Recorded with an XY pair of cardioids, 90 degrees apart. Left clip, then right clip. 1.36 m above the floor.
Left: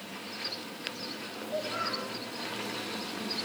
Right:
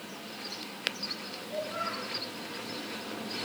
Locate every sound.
1.4 s a child speaking: 30° left, 7.5 m